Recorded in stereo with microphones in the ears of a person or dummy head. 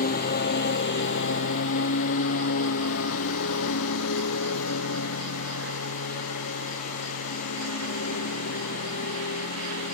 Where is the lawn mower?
45° left (ahead or behind); by 9.9 s 85° left.